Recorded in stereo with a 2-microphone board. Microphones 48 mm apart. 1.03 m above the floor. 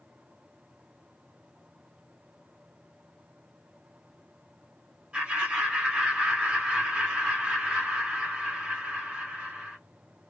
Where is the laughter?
20° right (ahead or behind), 1.3 m.